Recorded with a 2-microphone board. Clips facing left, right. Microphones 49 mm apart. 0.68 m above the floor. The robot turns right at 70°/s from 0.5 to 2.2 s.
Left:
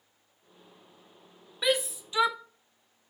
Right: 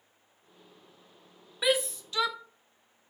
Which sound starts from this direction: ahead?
A shout, at 1.6 s.